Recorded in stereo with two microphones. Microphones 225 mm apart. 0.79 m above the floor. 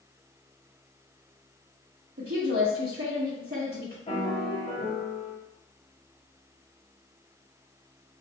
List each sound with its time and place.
2.2 s a woman speaking: 55° right (ahead or behind), 0.9 m
4.1 s a piano: 30° left (ahead or behind), 0.9 m